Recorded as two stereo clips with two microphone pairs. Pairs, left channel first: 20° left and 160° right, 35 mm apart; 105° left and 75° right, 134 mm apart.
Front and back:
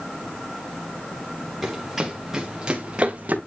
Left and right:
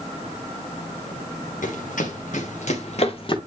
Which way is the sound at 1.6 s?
115° left.